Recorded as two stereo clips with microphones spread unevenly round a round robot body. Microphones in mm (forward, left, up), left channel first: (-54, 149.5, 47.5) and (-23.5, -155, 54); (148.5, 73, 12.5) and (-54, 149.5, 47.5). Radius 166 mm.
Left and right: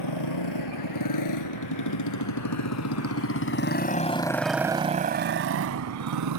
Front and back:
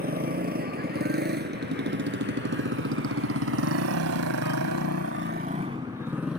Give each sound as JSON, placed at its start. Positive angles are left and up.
{"t": 0.0, "sound": "a motorcycle", "azimuth_deg": 115}